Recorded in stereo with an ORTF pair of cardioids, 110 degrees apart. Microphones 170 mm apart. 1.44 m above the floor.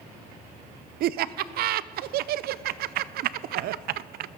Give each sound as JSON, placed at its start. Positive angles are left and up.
{"t": 1.0, "sound": "laughter", "azimuth_deg": -65, "distance_m": 0.5}